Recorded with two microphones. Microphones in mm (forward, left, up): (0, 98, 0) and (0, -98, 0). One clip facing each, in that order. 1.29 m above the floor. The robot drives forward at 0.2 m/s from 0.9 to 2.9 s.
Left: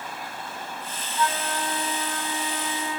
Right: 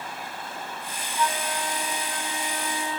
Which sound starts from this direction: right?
A flute, at 1.2 s.